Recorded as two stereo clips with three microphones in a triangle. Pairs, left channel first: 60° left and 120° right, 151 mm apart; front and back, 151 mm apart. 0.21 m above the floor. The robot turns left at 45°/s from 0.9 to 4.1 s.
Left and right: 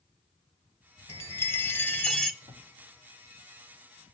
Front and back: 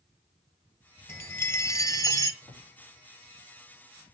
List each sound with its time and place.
1.1 s a chime: 35° left, 1.5 m; by 2.3 s 20° right, 1.5 m
2.4 s a drawer: 75° right, 5.5 m; by 2.7 s 85° right, 5.5 m